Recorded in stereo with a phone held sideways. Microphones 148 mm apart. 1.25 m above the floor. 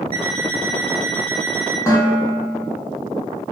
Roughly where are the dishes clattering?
Centre.